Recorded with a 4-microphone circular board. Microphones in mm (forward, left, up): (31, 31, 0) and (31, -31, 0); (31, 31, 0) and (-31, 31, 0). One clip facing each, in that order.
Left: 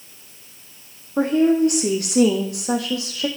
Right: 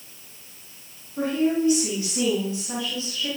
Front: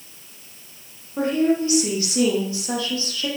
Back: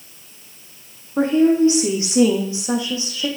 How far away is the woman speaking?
About 5.5 m.